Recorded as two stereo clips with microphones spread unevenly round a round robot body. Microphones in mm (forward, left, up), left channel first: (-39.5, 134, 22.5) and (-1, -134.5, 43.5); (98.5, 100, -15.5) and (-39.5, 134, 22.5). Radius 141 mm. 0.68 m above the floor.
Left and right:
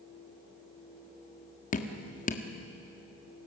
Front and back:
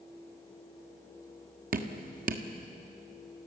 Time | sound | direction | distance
1.7 | dripping | 150° left | 1.6 m